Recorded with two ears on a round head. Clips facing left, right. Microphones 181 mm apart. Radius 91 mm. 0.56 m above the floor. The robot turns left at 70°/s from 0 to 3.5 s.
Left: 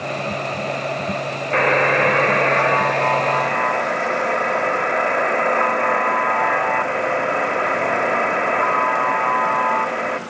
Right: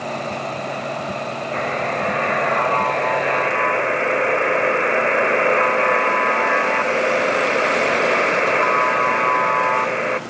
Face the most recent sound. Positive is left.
turn(degrees=-35)